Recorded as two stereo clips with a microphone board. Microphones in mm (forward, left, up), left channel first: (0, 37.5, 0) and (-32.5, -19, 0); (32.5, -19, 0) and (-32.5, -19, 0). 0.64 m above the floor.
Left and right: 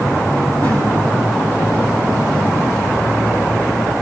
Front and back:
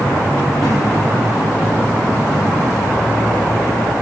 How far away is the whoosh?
About 10 m.